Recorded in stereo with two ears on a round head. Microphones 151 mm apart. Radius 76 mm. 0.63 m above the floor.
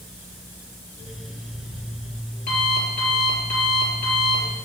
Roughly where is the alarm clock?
Left.